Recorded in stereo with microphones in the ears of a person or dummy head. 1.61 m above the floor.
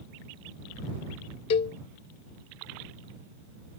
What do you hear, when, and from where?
1.5 s a cowbell: 25° left (ahead or behind)